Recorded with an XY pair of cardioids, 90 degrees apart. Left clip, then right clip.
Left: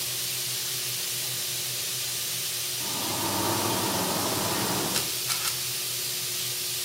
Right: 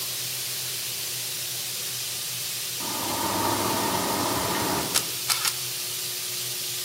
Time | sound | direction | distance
2.8 | a sliding door | 55° right | 9.5 m
4.9 | a camera shutter | 55° right | 1.5 m